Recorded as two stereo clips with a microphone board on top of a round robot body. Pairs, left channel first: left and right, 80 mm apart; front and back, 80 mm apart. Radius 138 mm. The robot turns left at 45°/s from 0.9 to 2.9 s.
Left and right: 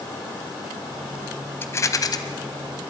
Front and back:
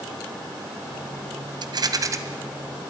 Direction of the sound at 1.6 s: 155° left.